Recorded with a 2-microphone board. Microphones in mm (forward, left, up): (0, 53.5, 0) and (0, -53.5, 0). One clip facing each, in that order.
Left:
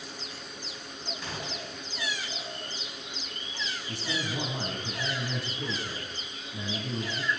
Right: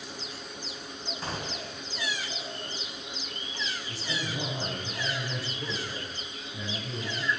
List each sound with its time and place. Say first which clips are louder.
1.2 s a gunshot: right 3 dB; 40° right (ahead or behind), 1.8 m
3.9 s a man speaking: left 4 dB; 65° left (ahead or behind), 5 m